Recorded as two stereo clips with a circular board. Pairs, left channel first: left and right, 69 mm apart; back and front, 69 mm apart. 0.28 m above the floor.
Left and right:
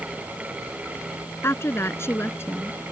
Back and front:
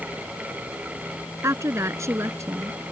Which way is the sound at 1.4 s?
40° left.